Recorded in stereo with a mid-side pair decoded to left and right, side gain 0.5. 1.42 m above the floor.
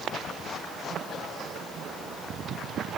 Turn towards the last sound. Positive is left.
No sound to turn to.